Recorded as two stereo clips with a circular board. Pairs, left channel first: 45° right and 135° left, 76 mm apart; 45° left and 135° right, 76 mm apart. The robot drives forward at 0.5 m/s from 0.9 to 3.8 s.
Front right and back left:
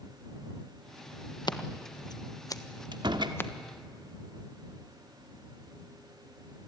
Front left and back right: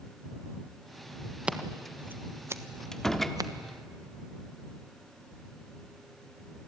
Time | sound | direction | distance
1.5 | scissors | 60° right | 1.4 m
2.9 | a door slam | 125° left | 1.5 m